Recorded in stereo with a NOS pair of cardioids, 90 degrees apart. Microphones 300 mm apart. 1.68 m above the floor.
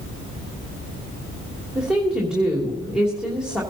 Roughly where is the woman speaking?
Ahead.